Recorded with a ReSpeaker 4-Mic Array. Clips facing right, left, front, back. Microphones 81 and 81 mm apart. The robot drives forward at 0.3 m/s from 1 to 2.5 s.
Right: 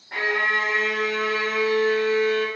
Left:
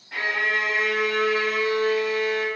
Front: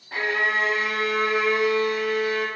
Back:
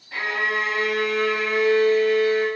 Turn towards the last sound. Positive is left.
turn(degrees=-80)